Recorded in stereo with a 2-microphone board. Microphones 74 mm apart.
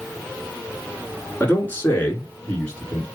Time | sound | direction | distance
1.4 | a man speaking | 25° left (ahead or behind) | 1.4 m